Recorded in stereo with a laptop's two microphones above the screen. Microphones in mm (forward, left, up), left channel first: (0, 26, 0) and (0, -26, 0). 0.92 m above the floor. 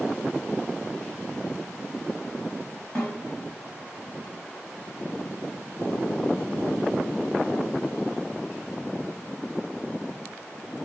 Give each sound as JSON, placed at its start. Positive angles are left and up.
{"t": 3.0, "sound": "a snare drum", "side_deg": 20, "distance_m": 4.0}